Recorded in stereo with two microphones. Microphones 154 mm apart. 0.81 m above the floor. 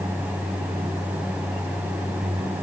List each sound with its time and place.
Only background noise.